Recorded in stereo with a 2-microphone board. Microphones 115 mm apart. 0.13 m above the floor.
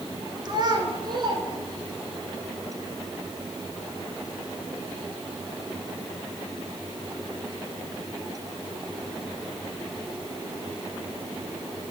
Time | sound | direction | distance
0.5 | a child speaking | 40° right (ahead or behind) | 1.3 m